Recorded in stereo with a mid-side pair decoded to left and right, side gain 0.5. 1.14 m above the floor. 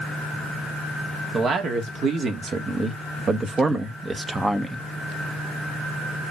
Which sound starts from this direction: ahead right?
A man speaking, at 1.3 s.